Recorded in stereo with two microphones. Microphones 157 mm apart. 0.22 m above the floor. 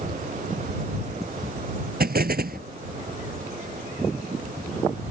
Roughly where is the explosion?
Right.